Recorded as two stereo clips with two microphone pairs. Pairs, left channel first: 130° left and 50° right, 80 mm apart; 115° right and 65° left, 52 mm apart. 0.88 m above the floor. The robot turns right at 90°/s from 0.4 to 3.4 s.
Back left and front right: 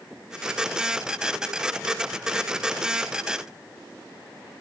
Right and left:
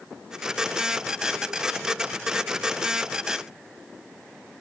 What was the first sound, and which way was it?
Only background noise.